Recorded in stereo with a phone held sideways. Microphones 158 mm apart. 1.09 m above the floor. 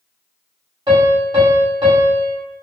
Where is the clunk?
I don't hear a clunk.